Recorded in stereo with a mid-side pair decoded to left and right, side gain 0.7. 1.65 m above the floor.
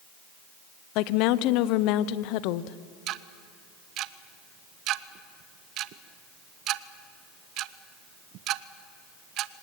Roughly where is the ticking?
Ahead right.